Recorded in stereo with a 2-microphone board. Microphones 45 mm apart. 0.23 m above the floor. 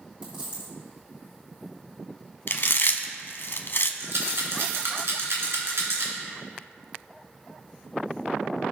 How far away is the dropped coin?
About 3 m.